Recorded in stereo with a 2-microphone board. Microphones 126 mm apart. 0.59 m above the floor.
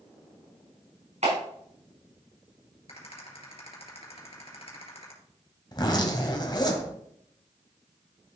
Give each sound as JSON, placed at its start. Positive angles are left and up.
{"t": 1.2, "sound": "a clap", "side_deg": -70, "distance_m": 5.5}
{"t": 2.9, "sound": "a rattle", "side_deg": 50, "distance_m": 3.0}
{"t": 5.7, "sound": "a zipper", "side_deg": 35, "distance_m": 1.8}